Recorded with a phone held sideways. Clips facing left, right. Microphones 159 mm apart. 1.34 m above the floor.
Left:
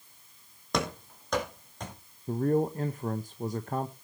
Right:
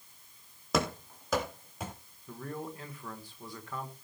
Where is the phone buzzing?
I don't hear a phone buzzing.